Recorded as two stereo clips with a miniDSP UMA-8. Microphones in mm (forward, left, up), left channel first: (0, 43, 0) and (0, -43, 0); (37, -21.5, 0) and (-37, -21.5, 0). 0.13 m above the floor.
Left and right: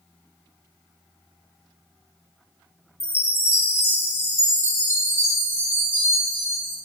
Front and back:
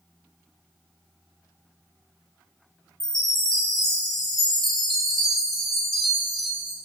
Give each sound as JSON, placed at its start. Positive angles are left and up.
{"t": 3.0, "sound": "a chime", "azimuth_deg": 80, "distance_m": 0.8}